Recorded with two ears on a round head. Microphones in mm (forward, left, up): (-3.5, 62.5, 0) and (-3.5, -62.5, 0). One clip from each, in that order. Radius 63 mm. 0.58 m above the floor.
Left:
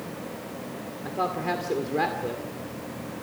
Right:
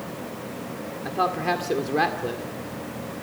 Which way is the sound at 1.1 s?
25° right (ahead or behind).